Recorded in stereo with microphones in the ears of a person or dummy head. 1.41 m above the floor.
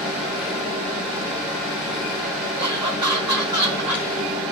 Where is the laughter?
15° right (ahead or behind), 1.4 m.